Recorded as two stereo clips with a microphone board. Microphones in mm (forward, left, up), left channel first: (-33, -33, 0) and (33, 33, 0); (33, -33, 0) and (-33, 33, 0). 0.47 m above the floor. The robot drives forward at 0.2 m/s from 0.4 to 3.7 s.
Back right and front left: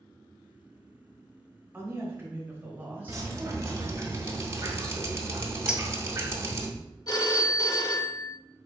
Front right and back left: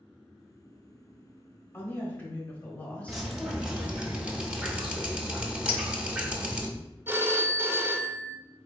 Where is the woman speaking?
5° left, 1.4 m; by 4.1 s 10° left, 1.2 m.